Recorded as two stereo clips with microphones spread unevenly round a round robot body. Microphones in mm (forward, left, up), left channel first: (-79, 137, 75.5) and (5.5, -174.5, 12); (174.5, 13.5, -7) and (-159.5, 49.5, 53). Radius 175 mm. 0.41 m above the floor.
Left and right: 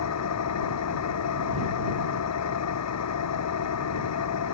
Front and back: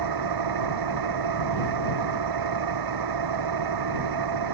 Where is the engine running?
145° left.